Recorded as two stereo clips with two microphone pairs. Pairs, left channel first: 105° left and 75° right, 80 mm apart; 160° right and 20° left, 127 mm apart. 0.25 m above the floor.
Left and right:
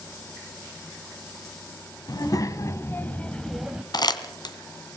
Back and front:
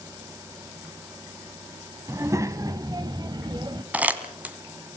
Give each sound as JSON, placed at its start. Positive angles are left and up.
{"t": 2.1, "sound": "a child speaking", "azimuth_deg": 85, "distance_m": 1.7}
{"t": 3.9, "sound": "crumpling", "azimuth_deg": 95, "distance_m": 2.0}